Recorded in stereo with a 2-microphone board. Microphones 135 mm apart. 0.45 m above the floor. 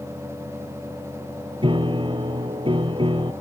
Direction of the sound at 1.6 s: 40° right (ahead or behind).